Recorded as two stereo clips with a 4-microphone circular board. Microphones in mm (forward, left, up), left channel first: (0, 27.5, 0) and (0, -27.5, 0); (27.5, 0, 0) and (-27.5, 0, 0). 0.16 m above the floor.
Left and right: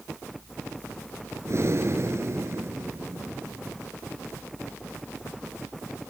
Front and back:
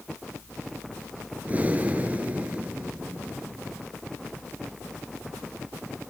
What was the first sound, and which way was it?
Breathing, 120° right.